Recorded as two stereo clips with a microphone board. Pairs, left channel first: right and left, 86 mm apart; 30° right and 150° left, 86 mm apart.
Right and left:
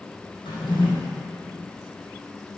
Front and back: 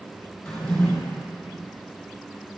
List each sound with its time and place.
0.5 s a drawer: 105° right, 3.5 m